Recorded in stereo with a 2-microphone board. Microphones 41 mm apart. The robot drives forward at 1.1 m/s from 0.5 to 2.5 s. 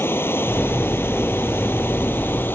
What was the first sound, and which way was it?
Running water, 70° left (ahead or behind).